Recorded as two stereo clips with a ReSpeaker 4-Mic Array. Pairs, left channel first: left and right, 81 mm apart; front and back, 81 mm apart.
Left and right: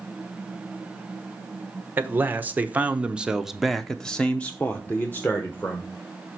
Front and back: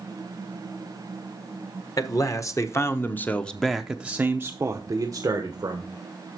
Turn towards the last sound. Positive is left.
turn(degrees=150)